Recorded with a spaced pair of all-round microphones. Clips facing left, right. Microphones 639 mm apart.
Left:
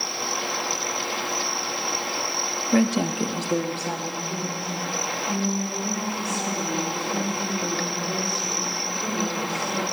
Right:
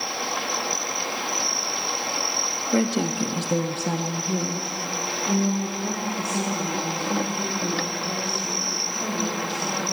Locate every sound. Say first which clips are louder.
2.7 s a woman speaking: left 2 dB; 30° left (ahead or behind), 0.6 m; by 9.8 s 90° right, 5 m